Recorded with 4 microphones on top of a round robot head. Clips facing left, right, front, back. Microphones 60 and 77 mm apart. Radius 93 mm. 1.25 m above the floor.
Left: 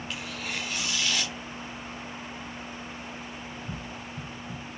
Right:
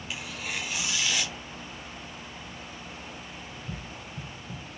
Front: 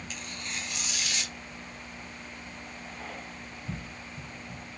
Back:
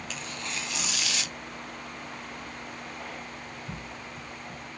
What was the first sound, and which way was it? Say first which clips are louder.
Tearing paper: right 1 dB, back 3 dB; 175° right.